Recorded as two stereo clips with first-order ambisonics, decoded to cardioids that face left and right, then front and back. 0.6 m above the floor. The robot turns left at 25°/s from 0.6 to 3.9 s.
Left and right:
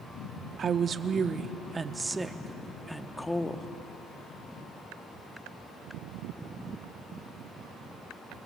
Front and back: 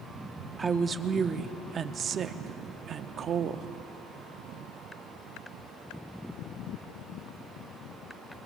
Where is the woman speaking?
125° right, 0.7 m; by 3.7 s 160° left, 0.7 m.